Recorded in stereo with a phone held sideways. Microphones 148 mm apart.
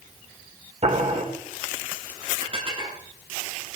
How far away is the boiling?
About 3 m.